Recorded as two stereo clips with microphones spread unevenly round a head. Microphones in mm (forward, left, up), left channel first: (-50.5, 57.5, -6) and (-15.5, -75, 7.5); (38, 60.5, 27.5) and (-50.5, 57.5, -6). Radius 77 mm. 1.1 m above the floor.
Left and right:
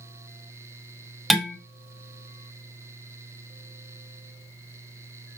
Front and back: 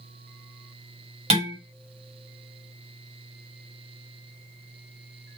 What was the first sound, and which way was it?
Dishes clattering, 165° right.